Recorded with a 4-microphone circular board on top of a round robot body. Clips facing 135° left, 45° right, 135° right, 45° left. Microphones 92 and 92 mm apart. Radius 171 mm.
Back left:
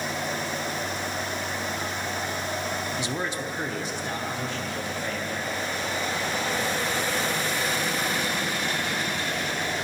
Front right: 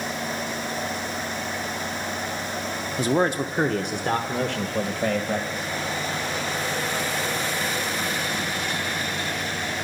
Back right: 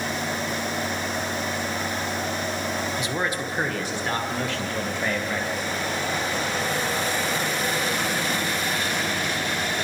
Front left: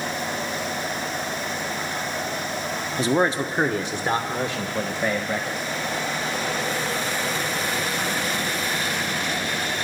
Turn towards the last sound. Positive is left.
turn(degrees=-40)